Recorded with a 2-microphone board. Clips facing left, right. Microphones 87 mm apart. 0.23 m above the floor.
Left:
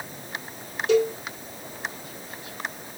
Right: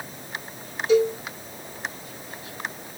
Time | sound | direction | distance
0.9 | a cowbell | 75° left (ahead or behind) | 2.0 m